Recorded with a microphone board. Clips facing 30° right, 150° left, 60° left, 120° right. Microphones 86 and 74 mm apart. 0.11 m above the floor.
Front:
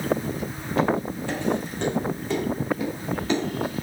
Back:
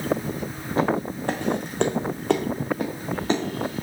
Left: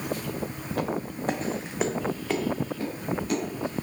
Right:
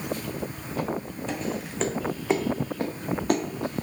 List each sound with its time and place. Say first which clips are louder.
0.7 s footsteps: even, left 1 dB; 90° left, 1.0 m; by 3.8 s 150° right, 1.5 m